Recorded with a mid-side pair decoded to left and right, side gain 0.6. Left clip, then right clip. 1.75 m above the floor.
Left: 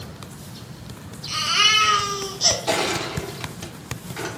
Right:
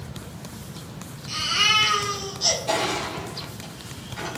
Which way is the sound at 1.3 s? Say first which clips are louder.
Left 2 dB; 40° left.